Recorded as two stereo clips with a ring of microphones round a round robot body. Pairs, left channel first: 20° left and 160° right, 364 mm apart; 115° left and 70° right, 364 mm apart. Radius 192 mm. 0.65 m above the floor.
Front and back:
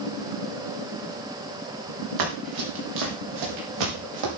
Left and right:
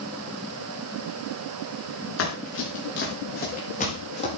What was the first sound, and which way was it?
Running footsteps, 165° left.